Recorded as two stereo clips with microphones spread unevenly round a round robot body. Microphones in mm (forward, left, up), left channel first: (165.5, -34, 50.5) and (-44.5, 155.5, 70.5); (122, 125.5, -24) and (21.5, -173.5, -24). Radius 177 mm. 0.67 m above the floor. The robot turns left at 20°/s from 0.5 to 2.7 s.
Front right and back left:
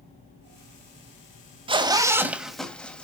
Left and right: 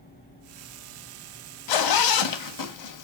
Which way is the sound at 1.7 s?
65° left.